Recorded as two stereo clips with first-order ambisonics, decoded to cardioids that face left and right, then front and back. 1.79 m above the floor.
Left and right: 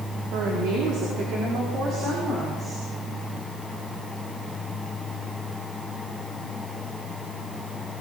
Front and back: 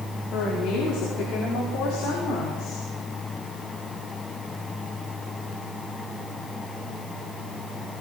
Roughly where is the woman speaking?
Ahead right.